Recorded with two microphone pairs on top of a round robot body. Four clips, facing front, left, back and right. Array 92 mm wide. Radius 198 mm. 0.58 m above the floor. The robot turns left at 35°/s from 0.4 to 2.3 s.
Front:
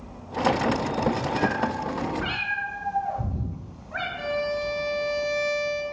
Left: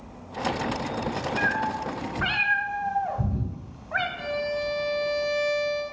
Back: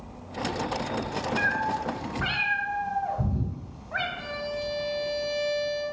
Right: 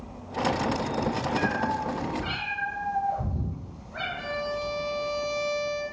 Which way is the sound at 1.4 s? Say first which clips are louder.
Left 1 dB, front 1 dB; 135° left.